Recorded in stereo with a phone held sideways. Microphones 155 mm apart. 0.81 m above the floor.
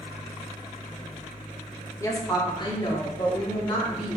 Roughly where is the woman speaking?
Centre.